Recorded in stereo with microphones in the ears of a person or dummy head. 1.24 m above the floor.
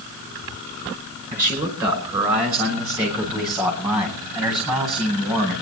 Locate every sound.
1.3 s a man speaking: 15° right (ahead or behind), 5 m; by 5.5 s 5° right (ahead or behind), 10.5 m